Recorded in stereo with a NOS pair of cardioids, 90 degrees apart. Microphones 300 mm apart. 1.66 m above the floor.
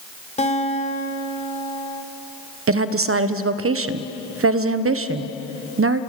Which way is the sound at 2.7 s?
50° right.